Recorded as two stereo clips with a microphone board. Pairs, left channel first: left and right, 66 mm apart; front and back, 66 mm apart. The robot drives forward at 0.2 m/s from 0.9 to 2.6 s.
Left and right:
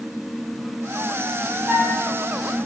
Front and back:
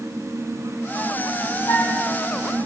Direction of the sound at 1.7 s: 25° right.